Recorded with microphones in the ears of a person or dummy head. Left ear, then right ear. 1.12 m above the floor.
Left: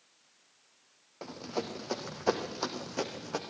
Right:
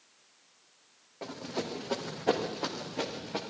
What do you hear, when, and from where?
1.2 s running footsteps: 25° left (ahead or behind), 4 m; by 3.4 s 65° left (ahead or behind), 4.5 m